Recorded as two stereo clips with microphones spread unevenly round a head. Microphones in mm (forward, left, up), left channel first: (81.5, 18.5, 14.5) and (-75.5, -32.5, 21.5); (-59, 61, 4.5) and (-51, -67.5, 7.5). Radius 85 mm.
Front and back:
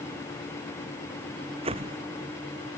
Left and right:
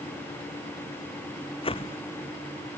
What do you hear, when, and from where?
1.6 s a whoosh: 140° left